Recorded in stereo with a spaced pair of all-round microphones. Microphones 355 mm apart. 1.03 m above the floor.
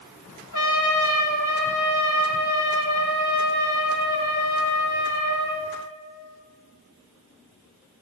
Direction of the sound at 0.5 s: 55° left (ahead or behind).